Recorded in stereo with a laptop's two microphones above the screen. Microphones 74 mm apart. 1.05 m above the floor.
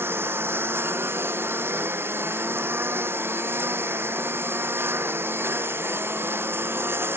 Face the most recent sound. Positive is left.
turn(degrees=-30)  # may be behind; listen again after turning